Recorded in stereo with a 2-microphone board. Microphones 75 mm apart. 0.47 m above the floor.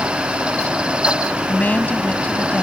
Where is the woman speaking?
20° left (ahead or behind).